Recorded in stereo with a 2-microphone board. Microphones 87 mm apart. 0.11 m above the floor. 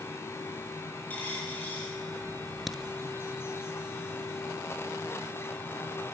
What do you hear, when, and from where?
1.1 s a dropped coin: 20° left (ahead or behind), 9 m
2.7 s a crack: centre (ahead or behind), 1.0 m